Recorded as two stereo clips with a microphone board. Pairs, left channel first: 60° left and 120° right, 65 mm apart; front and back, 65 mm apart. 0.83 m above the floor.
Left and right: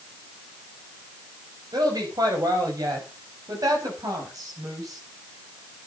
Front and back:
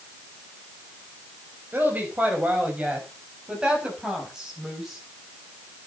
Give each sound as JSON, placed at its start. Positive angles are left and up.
{"t": 1.7, "sound": "a woman speaking", "azimuth_deg": -120, "distance_m": 5.0}